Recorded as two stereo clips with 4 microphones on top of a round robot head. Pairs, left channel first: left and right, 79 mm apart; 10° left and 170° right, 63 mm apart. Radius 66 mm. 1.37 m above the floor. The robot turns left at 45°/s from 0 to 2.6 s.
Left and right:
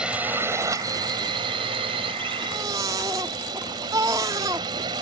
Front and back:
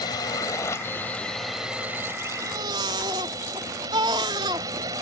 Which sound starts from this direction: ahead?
A drone, at 0.0 s.